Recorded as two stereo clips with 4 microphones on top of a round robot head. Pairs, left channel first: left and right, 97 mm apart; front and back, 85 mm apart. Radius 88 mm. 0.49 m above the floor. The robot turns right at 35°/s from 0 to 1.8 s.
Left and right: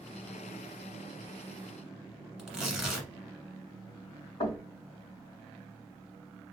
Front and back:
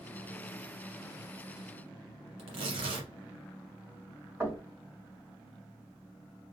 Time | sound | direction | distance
2.4 | tearing paper | 170° right | 1.2 m
4.4 | knocking | 120° left | 1.6 m